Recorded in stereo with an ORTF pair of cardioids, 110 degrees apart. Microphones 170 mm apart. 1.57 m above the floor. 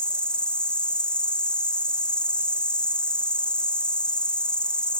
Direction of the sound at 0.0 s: 5° left.